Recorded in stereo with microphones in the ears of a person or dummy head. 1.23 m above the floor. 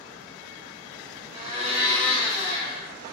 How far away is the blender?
About 1.9 m.